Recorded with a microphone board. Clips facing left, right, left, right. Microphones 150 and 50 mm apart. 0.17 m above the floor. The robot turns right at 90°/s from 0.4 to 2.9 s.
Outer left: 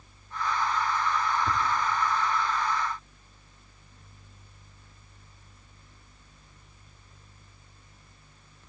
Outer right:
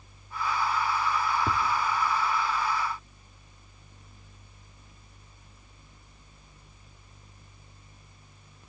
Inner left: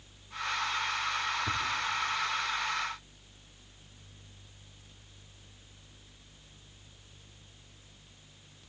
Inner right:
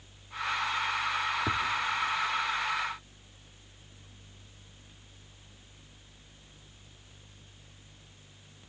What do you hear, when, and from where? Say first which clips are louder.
1.5 s tapping: even, inner right 3 dB; 80° right, 3 m; by 1.6 s 75° right (ahead or behind), 3 m